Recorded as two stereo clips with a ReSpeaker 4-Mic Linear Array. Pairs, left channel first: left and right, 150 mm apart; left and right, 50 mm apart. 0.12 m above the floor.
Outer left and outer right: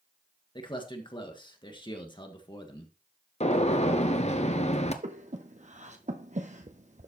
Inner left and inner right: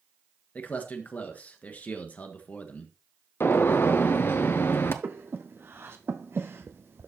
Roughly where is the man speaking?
Left.